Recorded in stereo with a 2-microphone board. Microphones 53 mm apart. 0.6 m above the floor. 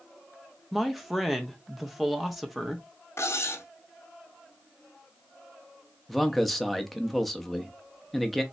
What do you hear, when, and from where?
0.7 s a man speaking: centre (ahead or behind), 0.6 m
3.2 s cutlery clinking: 55° left (ahead or behind), 0.6 m
6.1 s a man speaking: centre (ahead or behind), 0.6 m